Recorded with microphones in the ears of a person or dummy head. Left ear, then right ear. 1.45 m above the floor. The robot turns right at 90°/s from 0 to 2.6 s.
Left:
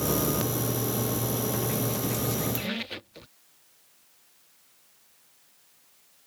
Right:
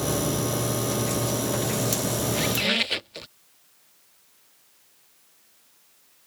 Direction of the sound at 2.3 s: 25° right (ahead or behind).